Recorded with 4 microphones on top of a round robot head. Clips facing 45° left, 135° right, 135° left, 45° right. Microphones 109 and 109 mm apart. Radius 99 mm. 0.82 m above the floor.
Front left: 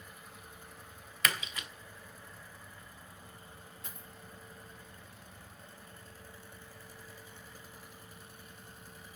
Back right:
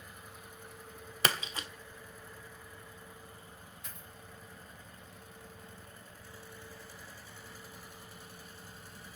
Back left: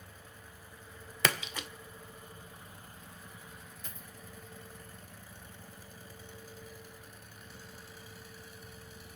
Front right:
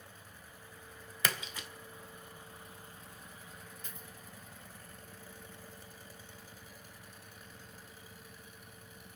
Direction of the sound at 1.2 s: 165° left.